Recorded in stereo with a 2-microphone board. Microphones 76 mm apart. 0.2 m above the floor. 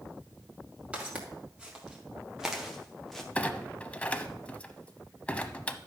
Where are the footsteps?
15° right (ahead or behind), 3.5 m; by 3.2 s 5° left (ahead or behind), 1.7 m.